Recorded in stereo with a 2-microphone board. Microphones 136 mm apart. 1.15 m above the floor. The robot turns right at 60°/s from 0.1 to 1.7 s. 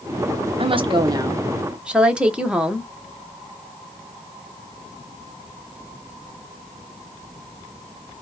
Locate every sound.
0.6 s a woman speaking: 75° right, 0.8 m; by 2.9 s 10° right, 0.8 m